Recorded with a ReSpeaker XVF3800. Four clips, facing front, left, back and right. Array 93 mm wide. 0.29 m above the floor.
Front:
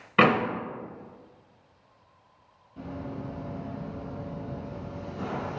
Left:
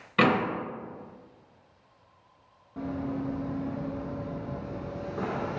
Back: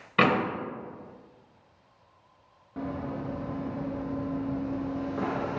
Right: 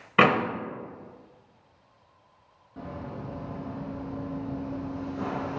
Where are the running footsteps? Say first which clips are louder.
Left 6 dB, back 4 dB; 170° left, 1.7 m; by 5.6 s 155° left, 3 m.